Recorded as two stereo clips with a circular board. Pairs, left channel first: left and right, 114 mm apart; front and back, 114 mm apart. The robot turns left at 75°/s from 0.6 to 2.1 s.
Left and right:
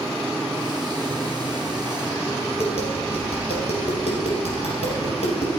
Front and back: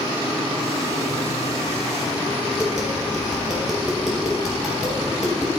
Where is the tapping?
90° left, 3.5 m.